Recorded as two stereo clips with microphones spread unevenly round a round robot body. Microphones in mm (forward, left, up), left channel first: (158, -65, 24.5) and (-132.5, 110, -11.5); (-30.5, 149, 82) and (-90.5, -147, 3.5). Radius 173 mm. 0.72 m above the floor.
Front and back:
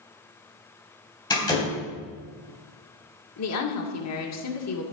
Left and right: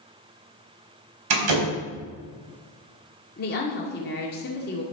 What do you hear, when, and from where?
1.3 s a door slam: 110° right, 4 m
3.4 s a woman speaking: 15° left, 2 m